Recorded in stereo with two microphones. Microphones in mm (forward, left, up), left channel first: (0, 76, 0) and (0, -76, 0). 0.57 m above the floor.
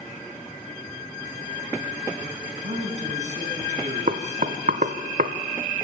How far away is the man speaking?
About 5 m.